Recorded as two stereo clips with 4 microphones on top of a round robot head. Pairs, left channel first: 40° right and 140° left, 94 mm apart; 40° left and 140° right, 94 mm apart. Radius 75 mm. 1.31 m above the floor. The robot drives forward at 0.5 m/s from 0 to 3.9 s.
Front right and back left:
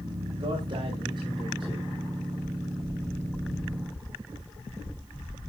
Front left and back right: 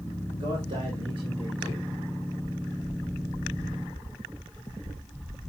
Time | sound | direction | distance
0.4 | a man speaking | straight behind | 4 m